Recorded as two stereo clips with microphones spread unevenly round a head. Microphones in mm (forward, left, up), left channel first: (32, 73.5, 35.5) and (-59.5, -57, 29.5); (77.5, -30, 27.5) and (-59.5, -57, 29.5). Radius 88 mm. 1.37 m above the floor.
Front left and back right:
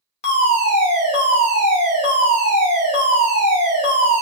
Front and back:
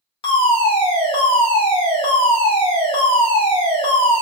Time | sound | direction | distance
0.2 | a fire alarm | 40° left | 0.8 m